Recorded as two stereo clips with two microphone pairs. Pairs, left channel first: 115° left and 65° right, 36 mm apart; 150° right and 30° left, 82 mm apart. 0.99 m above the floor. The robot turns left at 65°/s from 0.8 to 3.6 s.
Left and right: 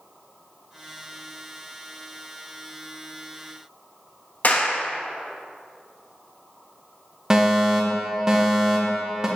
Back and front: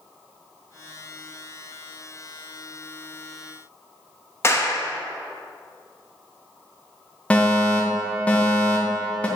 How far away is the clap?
About 1.0 m.